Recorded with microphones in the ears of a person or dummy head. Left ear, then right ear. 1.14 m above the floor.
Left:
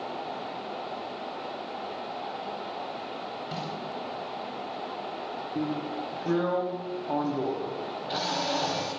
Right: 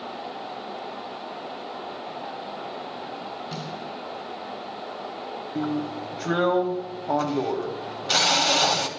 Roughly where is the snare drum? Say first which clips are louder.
Even; centre.